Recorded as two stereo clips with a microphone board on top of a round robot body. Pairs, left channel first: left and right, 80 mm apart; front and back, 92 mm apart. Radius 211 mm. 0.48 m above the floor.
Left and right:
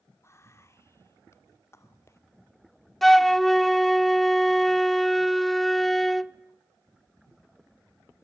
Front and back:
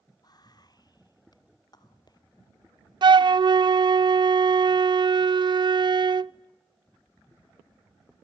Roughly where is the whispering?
Ahead left.